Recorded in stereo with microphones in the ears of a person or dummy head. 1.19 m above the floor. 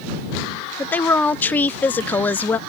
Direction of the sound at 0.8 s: 5° left (ahead or behind).